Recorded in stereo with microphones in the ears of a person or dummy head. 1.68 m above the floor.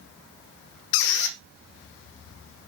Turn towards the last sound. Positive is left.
turn(degrees=60)  # may be behind; listen again after turning